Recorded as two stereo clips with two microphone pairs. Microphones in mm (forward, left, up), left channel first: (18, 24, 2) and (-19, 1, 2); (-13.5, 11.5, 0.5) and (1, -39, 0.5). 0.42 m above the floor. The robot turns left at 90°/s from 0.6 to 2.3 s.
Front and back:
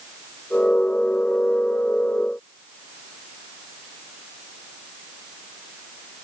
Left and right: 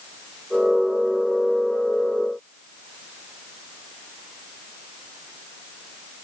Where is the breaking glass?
I don't hear breaking glass.